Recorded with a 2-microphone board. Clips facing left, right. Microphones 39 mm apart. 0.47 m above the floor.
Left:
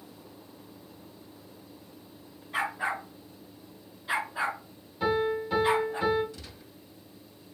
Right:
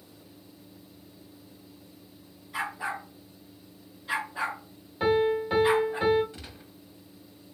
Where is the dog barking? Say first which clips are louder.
Left 2 dB; 35° left (ahead or behind), 2 m; by 6.0 s 15° right (ahead or behind), 2 m.